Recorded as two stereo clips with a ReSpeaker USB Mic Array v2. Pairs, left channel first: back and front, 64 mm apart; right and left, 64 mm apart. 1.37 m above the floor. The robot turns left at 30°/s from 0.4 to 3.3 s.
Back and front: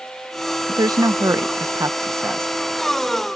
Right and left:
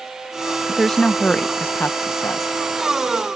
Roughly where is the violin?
No violin in this recording.